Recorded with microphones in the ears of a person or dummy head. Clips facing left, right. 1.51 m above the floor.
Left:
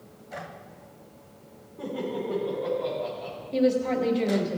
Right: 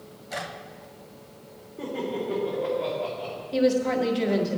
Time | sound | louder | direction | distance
1.8 | laughter | right 1 dB | 35° right (ahead or behind) | 4 m
3.5 | a woman speaking | right 1 dB | 5° right (ahead or behind) | 1.4 m